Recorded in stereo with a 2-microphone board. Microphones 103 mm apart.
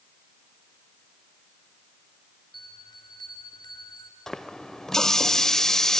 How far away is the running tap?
About 0.6 m.